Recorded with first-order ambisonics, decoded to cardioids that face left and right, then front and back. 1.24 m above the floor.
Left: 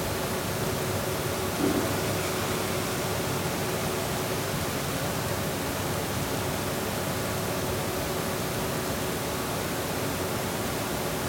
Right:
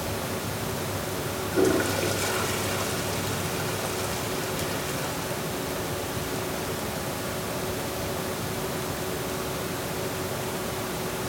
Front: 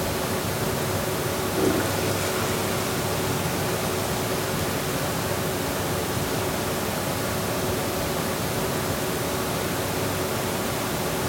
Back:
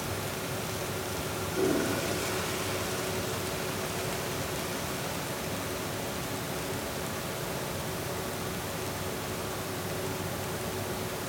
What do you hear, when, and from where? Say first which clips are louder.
1.5 s a toilet flushing: right 6 dB, front 3 dB; 70° right, 4 m